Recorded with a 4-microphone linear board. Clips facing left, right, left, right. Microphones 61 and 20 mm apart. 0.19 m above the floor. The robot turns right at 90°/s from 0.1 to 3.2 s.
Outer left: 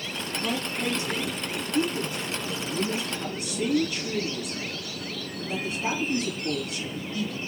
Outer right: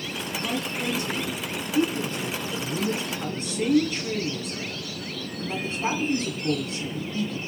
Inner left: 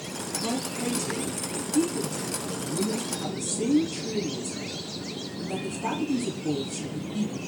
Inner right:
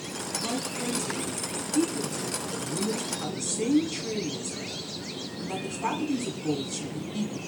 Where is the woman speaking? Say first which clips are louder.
Even, inner left 2 dB; 5° right, 1.4 m; by 7.3 s 115° right, 1.4 m.